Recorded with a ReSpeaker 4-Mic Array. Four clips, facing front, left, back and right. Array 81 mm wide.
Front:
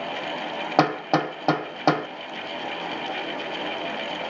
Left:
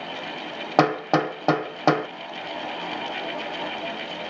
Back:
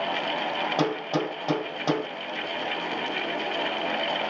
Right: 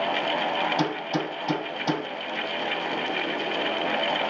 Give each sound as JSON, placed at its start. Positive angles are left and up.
{"t": 0.8, "sound": "hammering", "azimuth_deg": 55, "distance_m": 1.1}